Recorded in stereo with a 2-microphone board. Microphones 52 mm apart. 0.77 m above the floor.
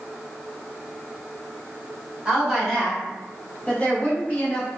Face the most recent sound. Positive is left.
turn(degrees=30)  # may be behind; listen again after turning